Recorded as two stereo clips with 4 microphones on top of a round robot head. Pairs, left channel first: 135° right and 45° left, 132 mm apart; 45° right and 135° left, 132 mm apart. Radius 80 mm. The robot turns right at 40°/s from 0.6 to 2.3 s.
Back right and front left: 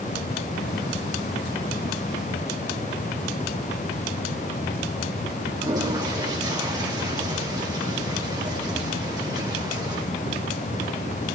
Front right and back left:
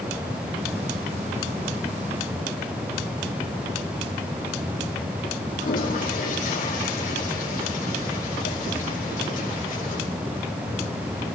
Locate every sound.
5.6 s a toilet flushing: 20° right, 5 m